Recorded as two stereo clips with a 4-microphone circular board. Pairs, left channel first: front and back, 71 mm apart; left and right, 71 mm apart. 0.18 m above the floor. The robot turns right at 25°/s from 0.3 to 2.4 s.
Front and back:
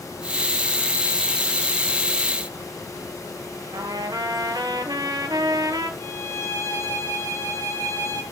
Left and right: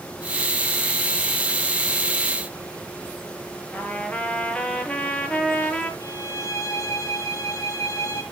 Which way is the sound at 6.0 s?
50° left.